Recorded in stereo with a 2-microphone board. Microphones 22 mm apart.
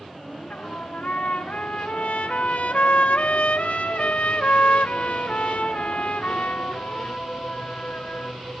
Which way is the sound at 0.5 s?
75° left (ahead or behind).